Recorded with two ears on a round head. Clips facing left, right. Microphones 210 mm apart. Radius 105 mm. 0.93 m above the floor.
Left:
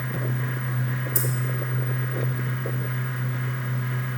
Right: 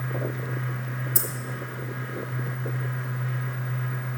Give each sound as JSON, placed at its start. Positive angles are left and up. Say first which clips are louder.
{"t": 1.1, "sound": "keys jangling", "louder": "left 5 dB", "side_deg": -5, "distance_m": 0.8}